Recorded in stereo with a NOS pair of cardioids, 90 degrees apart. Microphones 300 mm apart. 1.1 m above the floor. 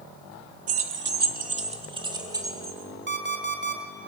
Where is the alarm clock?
35° right, 2.5 m.